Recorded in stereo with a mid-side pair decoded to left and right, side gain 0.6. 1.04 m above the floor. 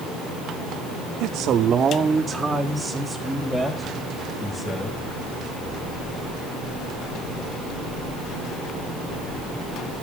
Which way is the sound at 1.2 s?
65° right.